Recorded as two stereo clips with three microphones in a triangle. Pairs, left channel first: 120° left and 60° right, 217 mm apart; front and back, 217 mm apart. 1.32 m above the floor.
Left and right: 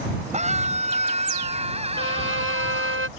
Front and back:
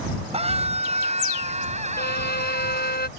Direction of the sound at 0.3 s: 120° right.